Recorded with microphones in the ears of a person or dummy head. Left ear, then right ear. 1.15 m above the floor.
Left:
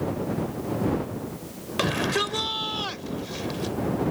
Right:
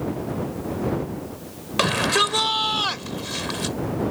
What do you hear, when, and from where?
1.8 s a shout: 25° right (ahead or behind); by 3.8 s 45° right (ahead or behind)